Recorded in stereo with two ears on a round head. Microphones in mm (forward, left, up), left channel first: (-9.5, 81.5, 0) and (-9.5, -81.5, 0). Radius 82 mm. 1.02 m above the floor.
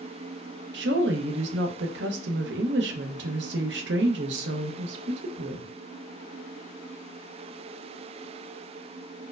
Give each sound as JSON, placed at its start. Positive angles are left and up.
{"t": 0.7, "sound": "a woman speaking", "side_deg": -65, "distance_m": 0.6}